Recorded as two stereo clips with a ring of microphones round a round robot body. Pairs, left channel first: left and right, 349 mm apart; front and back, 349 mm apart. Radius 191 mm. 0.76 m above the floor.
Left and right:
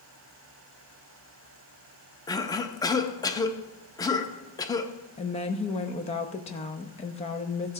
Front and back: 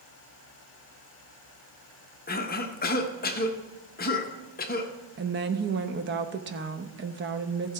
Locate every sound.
2.3 s a cough: 20° left, 0.9 m
5.2 s a woman speaking: 150° left, 0.7 m